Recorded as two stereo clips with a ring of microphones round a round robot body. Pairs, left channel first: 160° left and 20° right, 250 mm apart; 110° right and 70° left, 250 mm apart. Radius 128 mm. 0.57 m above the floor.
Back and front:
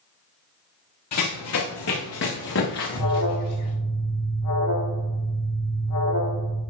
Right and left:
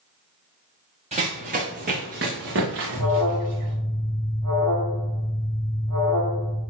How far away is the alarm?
About 3 m.